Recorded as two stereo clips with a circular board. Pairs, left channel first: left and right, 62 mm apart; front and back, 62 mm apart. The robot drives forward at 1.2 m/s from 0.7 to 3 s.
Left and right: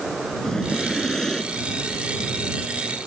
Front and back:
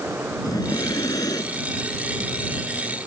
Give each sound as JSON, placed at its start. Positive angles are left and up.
{"t": 0.4, "sound": "breathing", "azimuth_deg": 5}